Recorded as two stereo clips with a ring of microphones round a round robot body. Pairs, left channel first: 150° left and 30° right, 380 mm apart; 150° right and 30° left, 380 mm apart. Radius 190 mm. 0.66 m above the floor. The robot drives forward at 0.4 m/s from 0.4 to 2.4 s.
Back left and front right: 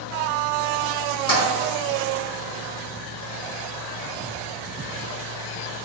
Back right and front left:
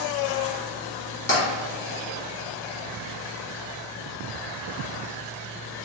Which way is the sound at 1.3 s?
150° left.